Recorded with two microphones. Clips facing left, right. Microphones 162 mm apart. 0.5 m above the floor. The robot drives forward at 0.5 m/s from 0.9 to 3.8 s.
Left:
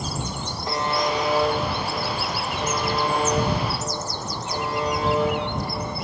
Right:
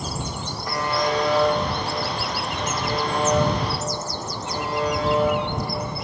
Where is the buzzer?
25° left (ahead or behind), 0.5 m; by 5.4 s 5° left (ahead or behind), 1.8 m.